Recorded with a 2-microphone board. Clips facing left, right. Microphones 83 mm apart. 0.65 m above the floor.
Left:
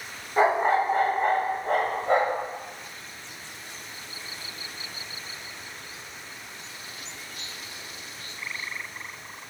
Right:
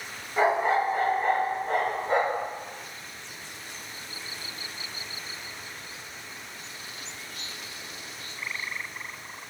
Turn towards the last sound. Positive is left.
turn(degrees=75)  # may be behind; listen again after turning